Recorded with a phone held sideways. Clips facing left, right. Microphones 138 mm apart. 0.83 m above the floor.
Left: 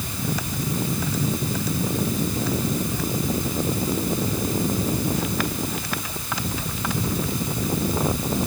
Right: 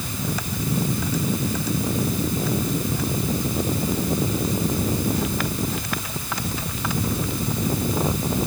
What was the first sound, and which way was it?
Only background noise.